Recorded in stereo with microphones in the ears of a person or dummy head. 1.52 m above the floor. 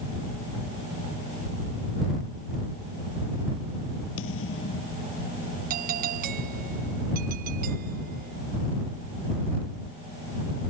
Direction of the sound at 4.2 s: 75° left (ahead or behind).